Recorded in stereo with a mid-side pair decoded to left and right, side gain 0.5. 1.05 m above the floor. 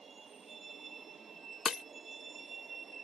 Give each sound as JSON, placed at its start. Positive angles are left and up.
{"t": 0.0, "sound": "a vehicle", "azimuth_deg": -30}
{"t": 1.6, "sound": "breaking glass", "azimuth_deg": 40}